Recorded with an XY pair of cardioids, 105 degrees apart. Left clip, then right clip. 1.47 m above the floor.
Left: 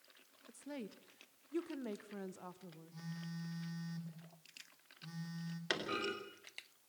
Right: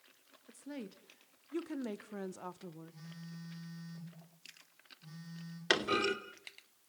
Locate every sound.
0.5 s a woman speaking: 5° left, 2.5 m; by 2.9 s 50° right, 1.3 m
2.9 s a phone buzzing: 25° left, 5 m
5.7 s a clunk: 40° right, 3 m